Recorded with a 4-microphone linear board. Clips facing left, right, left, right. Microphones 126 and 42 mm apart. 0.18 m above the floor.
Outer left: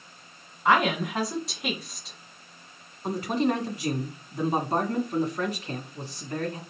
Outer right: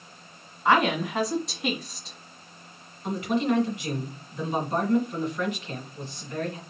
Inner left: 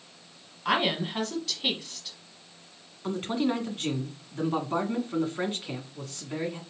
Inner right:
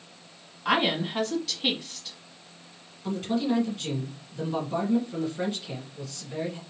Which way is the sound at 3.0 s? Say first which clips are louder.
Even, inner right 1 dB; 40° left (ahead or behind).